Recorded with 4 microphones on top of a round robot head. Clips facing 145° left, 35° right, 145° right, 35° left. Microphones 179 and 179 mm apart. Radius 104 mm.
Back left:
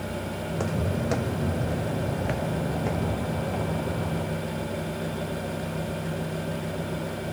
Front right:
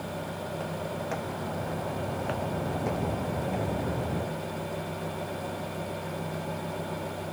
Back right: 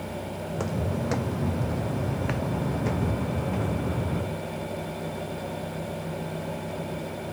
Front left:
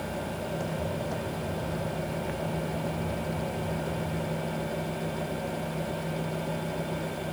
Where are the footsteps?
Straight behind; by 4.4 s 110° right.